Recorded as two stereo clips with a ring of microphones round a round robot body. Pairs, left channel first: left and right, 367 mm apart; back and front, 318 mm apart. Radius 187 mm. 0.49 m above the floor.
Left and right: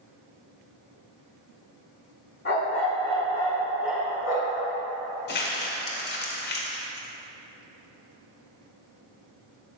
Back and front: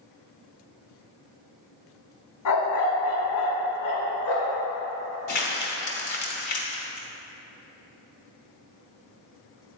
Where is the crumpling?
150° left, 1.1 m.